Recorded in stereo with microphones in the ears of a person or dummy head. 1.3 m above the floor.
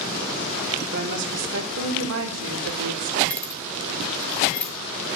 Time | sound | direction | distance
0.9 | a woman speaking | 65° right (ahead or behind) | 3.5 m
3.3 | keys jangling | 5° left (ahead or behind) | 3 m